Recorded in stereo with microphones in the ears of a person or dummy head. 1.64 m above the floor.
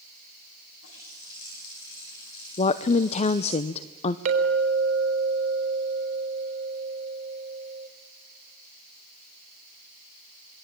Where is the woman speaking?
40° left (ahead or behind), 0.8 m.